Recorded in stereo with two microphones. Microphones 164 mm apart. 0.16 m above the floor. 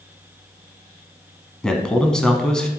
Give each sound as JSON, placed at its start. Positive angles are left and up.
{"t": 1.6, "sound": "a man speaking", "side_deg": 5, "distance_m": 1.1}